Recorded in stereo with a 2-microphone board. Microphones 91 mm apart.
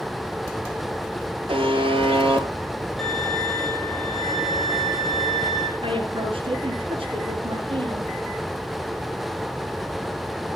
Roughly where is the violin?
Centre.